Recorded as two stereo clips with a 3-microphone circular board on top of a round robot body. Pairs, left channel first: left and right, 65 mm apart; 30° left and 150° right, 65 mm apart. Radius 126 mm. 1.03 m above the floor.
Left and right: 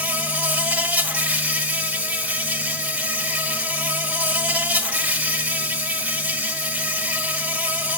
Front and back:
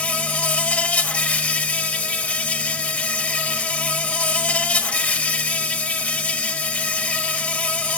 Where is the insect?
30° right, 1.9 m.